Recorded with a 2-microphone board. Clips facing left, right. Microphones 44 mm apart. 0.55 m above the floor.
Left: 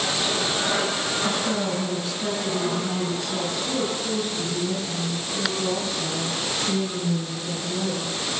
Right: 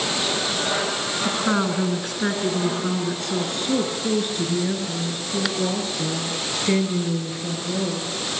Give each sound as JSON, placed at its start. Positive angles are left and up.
{"t": 1.2, "sound": "a woman speaking", "side_deg": -60, "distance_m": 7.0}